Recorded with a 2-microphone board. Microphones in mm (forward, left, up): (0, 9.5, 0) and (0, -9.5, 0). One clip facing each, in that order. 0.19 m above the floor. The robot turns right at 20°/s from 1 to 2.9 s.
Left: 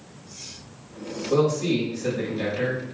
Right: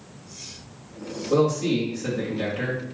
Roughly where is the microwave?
No microwave in this recording.